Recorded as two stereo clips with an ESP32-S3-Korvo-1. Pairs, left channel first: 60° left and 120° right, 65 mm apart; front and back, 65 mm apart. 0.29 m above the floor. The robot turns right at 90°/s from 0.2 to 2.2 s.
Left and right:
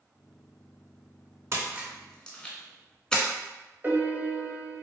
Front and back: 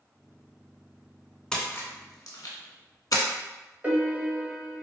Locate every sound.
1.5 s a splash: 80° right, 0.7 m; by 3.2 s 15° right, 0.7 m
3.8 s a piano: 145° right, 0.6 m